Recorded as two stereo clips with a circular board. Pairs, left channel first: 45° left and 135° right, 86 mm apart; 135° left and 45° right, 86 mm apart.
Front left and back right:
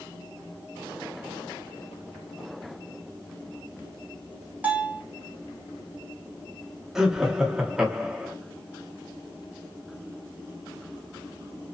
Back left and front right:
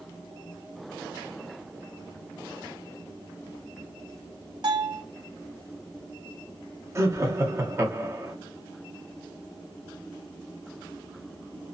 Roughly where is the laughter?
Ahead right.